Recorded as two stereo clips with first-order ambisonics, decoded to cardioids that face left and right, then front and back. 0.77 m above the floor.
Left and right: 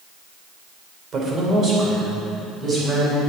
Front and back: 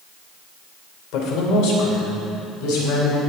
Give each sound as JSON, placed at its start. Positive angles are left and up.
{"t": 1.1, "sound": "a man speaking", "azimuth_deg": -30, "distance_m": 3.0}